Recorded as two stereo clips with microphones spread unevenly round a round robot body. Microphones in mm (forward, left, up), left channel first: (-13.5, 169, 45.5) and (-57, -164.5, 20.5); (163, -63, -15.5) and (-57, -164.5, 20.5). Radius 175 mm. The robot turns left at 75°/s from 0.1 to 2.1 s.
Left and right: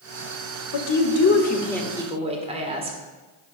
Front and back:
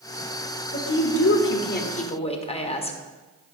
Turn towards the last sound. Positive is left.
turn(degrees=-30)